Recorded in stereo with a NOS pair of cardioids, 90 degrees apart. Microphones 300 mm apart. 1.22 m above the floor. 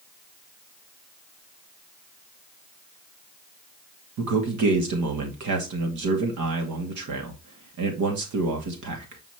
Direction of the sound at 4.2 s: 70° right.